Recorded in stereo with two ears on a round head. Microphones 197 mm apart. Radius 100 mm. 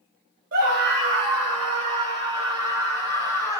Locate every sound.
0.5 s a scream: 45° right (ahead or behind), 1.2 m; by 3.6 s 15° right (ahead or behind), 3.5 m